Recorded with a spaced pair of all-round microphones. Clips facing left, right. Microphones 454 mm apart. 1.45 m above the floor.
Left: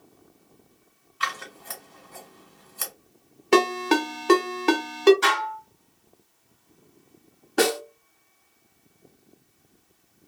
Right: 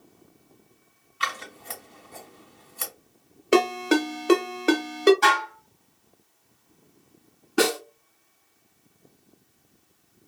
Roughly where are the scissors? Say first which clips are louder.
Even; centre.